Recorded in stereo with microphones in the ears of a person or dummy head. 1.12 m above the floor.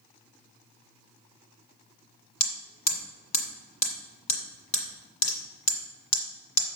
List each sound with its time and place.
2.4 s hammering: 40° left (ahead or behind), 1.8 m